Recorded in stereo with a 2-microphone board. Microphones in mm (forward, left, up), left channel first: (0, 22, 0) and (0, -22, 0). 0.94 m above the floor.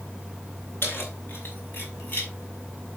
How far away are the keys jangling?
About 4.5 m.